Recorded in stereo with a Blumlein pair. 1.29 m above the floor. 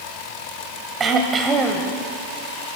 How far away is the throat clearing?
About 2.5 m.